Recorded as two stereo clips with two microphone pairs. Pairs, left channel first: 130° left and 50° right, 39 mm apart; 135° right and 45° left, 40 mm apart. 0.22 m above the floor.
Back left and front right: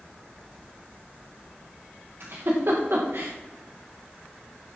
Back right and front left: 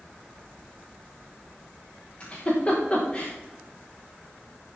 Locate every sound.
2.2 s a giggle: 80° right, 5 m